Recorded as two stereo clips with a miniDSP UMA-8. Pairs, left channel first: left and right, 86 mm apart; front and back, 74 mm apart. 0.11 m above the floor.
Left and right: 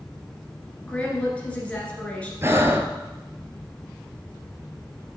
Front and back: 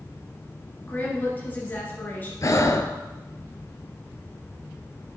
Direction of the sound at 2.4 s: 35° right.